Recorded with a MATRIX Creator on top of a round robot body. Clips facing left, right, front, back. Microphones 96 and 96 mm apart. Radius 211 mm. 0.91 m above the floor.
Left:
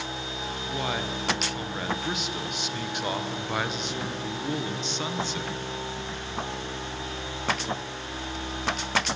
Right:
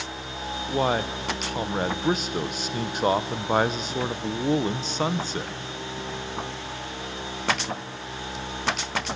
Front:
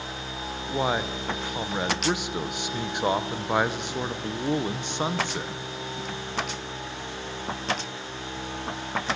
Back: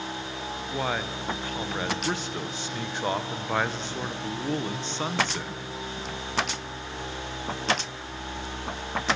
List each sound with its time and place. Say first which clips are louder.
0.7 s a man speaking: right 7 dB, front 4 dB; 65° right, 1.0 m